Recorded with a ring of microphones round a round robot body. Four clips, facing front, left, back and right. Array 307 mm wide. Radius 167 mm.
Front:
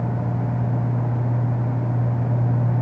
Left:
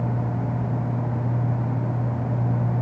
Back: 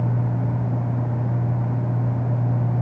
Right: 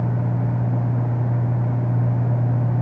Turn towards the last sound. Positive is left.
No sound to turn to.